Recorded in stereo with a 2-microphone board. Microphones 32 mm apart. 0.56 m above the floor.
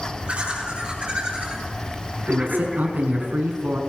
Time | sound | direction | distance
0.3 | laughter | 45° right (ahead or behind) | 8.5 m
2.3 | a man speaking | 75° right (ahead or behind) | 5.5 m